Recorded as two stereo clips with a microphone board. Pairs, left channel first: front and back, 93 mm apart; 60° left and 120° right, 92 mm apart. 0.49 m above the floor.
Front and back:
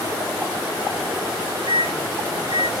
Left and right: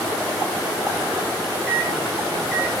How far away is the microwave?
About 1.8 m.